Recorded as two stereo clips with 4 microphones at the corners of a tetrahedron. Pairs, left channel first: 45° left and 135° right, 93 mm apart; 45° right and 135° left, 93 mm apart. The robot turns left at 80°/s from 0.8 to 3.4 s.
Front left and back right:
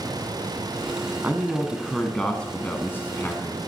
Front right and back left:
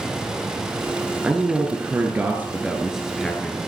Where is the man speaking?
165° right, 1.2 m; by 3.6 s 25° left, 1.2 m.